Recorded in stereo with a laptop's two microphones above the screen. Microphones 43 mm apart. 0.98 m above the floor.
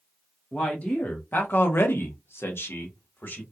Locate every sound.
0.5 s a man speaking: 25° left (ahead or behind), 0.8 m; by 3.4 s 60° left (ahead or behind), 1.2 m